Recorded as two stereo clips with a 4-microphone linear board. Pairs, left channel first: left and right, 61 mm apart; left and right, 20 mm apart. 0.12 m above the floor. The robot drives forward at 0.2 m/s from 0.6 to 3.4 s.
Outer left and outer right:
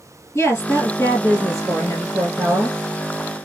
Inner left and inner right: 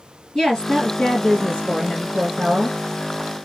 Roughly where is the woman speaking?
Left.